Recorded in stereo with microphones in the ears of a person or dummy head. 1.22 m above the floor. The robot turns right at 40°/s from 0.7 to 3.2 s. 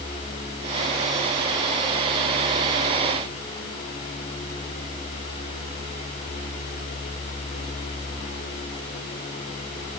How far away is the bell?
No bell in this recording.